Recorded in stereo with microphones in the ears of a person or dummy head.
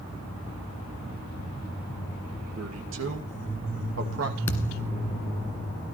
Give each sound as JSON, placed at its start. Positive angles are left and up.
{"t": 2.5, "sound": "a man speaking", "side_deg": -90, "distance_m": 2.5}
{"t": 4.5, "sound": "a thud", "side_deg": 15, "distance_m": 1.9}